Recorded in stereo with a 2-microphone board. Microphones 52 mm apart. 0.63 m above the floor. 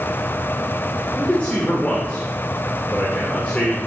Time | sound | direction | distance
1.2 | a man speaking | 25° left (ahead or behind) | 2 m